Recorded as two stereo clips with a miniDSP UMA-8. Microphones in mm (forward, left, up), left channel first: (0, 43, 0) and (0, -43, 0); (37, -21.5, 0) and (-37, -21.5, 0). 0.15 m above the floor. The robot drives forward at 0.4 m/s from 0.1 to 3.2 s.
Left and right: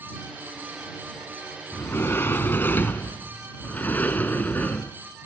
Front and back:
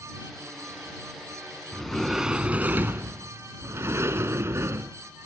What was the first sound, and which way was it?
A sliding door, 70° left.